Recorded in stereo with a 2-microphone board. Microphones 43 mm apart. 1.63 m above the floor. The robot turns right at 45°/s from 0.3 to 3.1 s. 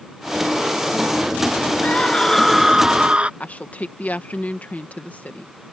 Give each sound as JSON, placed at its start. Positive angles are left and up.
{"t": 1.8, "sound": "a scream", "azimuth_deg": 150}
{"t": 3.4, "sound": "a woman speaking", "side_deg": 40}